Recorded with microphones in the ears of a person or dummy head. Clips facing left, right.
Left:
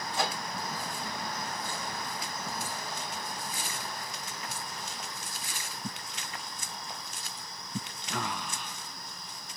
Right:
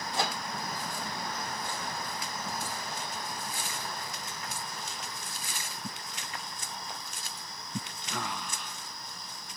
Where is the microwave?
25° right (ahead or behind), 1.3 m.